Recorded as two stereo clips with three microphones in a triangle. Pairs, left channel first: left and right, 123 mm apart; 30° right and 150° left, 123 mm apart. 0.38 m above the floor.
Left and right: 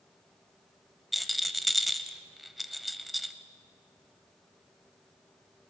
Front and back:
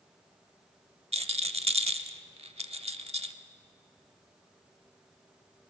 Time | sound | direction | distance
1.1 | a rattle | straight behind | 0.7 m